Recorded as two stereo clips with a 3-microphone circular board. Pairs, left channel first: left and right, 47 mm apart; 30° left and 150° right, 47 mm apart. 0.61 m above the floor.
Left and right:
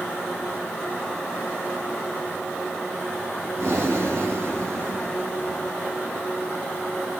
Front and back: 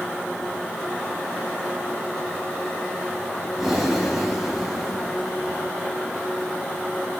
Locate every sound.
3.6 s breathing: 60° right, 2.5 m